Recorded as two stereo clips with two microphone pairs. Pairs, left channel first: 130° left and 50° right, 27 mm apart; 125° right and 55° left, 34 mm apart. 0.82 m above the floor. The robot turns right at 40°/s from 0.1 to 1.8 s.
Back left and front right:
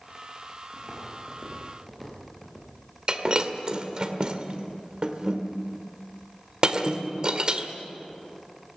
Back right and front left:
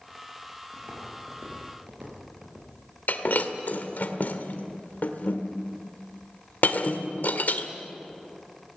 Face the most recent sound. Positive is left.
turn(degrees=-100)